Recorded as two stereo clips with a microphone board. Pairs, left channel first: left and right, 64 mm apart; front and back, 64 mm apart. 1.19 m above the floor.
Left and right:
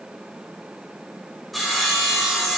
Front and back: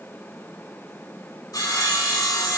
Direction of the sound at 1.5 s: Straight ahead.